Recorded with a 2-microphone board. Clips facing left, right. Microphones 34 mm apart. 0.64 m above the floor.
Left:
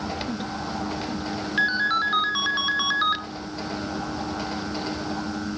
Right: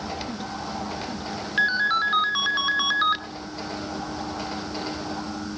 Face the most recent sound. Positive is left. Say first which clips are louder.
# right 1 dB
turn(degrees=0)  # may be behind; listen again after turning